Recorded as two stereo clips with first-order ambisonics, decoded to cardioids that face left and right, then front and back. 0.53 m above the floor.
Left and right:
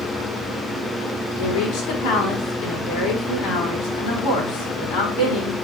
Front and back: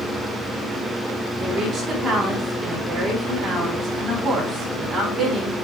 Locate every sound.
1.4 s a woman speaking: 105° left, 6.5 m